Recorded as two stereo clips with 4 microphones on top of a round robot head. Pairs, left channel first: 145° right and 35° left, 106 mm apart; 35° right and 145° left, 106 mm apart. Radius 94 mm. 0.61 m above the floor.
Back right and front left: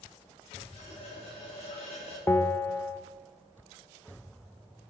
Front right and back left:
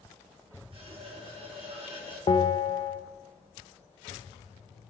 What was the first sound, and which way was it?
A running tap, 175° right.